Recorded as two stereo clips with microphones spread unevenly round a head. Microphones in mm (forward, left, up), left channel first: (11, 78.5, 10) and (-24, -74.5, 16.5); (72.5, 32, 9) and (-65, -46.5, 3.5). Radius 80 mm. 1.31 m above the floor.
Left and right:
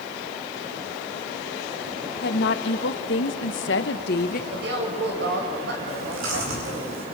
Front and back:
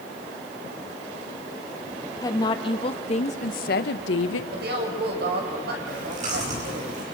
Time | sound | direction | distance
2.2 | a woman speaking | 100° left | 2.0 m
4.5 | a woman speaking | 120° right | 6.5 m
5.9 | chewing | 105° right | 9 m